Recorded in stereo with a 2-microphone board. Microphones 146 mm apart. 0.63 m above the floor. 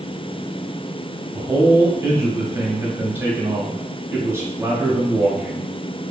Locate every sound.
1.3 s a man speaking: 15° right (ahead or behind), 0.8 m